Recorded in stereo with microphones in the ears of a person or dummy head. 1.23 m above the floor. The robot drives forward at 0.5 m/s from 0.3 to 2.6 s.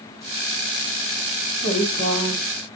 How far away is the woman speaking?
About 2.5 m.